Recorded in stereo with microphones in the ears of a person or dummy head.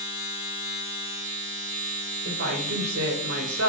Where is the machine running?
30° right (ahead or behind), 1.4 m.